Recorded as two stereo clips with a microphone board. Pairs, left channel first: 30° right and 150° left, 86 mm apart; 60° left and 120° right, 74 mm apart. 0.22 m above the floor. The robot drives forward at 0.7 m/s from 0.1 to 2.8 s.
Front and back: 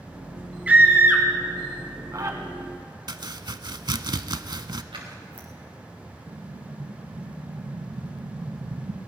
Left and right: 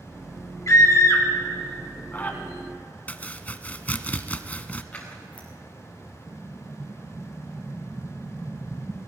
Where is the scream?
80° left, 2.5 m; by 2.4 s 120° left, 2.5 m.